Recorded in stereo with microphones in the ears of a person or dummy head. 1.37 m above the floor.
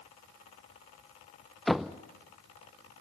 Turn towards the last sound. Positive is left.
turn(degrees=-5)  # may be behind; listen again after turning